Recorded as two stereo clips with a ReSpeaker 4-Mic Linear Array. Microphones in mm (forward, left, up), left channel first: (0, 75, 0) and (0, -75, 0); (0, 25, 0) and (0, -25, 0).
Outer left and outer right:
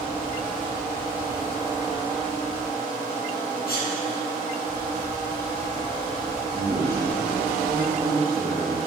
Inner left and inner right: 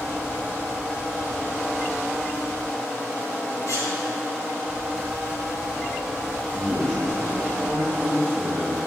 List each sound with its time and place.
3.7 s a sneeze: 75° left (ahead or behind), 4.5 m
6.4 s a man speaking: 10° left (ahead or behind), 4.5 m